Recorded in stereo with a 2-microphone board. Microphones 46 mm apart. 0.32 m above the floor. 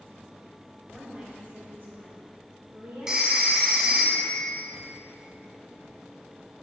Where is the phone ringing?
15° right (ahead or behind), 1.4 m.